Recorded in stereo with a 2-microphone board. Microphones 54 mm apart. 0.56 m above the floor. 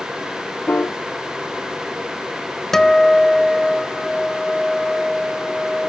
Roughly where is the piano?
Left.